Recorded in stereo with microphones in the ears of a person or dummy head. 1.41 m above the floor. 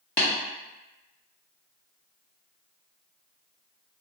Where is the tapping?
30° left (ahead or behind), 1.0 m.